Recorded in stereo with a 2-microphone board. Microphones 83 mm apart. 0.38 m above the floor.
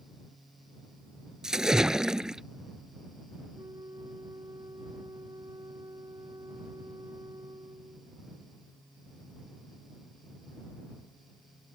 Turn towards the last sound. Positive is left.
turn(degrees=-55)  # may be behind; listen again after turning